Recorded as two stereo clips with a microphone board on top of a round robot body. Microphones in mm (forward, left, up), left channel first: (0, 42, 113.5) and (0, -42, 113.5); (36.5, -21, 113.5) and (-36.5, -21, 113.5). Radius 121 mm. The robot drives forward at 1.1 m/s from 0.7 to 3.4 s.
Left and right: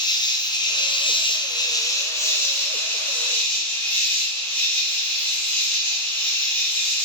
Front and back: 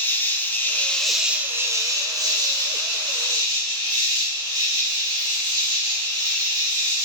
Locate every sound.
0.0 s an insect: 60° left, 1.0 m; by 7.0 s 160° left, 2.5 m